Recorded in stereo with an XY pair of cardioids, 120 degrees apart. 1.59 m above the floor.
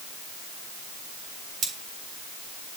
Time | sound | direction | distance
1.6 | cutlery clinking | 55° right | 2 m